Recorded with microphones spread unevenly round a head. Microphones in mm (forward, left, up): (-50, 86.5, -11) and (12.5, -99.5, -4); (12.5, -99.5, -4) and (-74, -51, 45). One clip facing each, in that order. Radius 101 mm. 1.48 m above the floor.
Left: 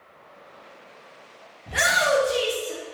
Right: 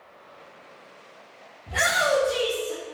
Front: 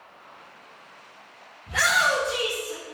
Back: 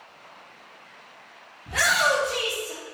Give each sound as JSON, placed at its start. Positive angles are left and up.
{"t": 1.7, "sound": "a shout", "azimuth_deg": 180, "distance_m": 1.5}